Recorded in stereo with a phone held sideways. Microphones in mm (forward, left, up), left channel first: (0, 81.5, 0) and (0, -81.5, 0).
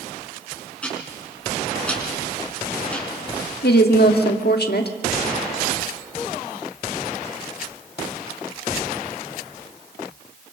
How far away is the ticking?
About 5.5 m.